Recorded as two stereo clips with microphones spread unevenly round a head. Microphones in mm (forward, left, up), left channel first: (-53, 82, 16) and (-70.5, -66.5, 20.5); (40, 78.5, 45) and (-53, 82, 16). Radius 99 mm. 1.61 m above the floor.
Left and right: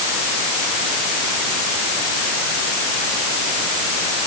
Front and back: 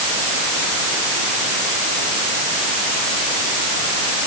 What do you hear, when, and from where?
Only background noise.